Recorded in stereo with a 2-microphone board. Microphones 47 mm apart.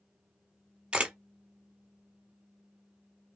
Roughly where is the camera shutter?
Right.